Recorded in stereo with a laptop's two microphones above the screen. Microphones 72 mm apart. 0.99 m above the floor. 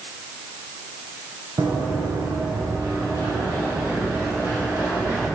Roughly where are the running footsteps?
Right.